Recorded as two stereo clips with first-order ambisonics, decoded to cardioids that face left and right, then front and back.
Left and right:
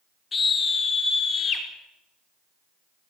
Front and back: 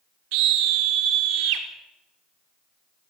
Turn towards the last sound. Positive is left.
turn(degrees=155)